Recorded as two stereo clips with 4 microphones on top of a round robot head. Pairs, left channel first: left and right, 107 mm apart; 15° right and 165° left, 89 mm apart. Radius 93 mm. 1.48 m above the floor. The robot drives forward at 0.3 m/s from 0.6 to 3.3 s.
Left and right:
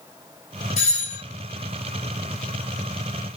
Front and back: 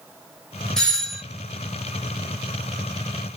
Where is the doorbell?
70° left, 1.4 m; by 1.2 s 75° left, 1.3 m.